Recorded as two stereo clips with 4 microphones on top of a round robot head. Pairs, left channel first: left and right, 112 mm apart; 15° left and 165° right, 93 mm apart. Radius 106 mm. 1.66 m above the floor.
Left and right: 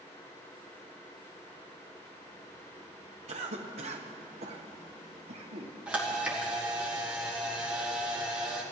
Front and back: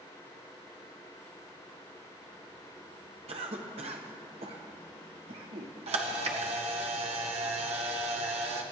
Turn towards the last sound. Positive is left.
turn(degrees=-170)